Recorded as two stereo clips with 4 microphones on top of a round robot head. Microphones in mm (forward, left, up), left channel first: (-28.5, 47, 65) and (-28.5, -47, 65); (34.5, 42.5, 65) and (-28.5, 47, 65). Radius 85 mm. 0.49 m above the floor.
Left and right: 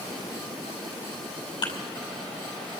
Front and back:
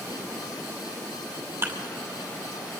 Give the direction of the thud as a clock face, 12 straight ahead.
8 o'clock.